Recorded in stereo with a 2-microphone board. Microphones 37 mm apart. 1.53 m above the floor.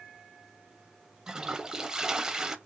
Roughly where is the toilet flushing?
Centre.